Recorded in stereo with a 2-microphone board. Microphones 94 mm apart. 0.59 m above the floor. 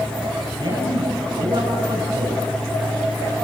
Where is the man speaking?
65° right (ahead or behind), 7 m.